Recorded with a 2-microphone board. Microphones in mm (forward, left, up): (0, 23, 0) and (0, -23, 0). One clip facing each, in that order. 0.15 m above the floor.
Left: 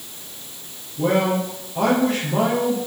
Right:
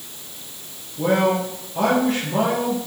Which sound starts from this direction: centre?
A man speaking, at 1.0 s.